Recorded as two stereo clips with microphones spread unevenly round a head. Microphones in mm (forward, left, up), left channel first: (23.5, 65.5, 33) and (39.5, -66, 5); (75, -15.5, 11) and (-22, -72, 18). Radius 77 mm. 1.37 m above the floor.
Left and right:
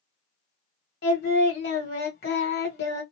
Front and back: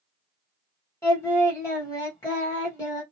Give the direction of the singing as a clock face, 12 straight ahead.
9 o'clock.